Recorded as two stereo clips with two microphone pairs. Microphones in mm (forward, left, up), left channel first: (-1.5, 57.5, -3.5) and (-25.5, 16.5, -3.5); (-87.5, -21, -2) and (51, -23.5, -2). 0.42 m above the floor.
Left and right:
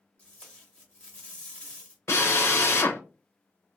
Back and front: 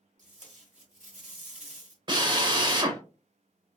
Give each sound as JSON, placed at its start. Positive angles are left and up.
{"t": 0.2, "sound": "tape being pulled", "azimuth_deg": 0, "distance_m": 0.9}
{"t": 2.1, "sound": "a drill", "azimuth_deg": 55, "distance_m": 0.6}